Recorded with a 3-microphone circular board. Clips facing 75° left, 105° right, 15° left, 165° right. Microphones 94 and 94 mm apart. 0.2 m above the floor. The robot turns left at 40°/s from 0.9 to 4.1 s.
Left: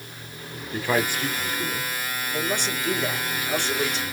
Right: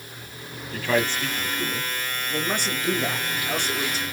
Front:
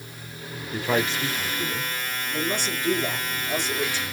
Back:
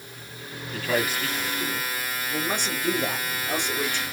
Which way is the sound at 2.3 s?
125° right.